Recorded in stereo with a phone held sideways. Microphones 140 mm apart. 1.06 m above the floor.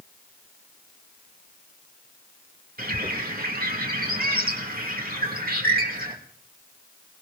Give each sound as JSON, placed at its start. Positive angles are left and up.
{"t": 2.8, "sound": "a bird", "side_deg": -80, "distance_m": 2.5}